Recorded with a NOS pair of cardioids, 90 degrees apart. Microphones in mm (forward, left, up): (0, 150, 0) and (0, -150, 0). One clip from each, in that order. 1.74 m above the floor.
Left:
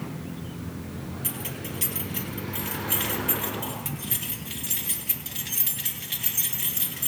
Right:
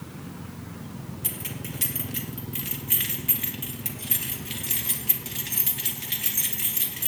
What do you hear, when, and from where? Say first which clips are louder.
1.2 s keys jangling: even; 20° right, 2.5 m